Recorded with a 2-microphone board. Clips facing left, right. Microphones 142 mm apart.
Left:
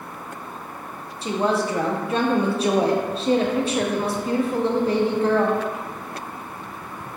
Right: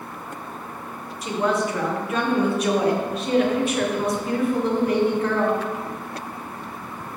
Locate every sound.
1.2 s a woman speaking: 30° left (ahead or behind), 0.5 m